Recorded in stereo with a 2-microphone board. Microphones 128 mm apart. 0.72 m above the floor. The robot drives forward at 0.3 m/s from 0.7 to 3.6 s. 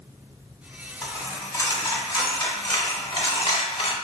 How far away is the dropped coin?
About 1.3 m.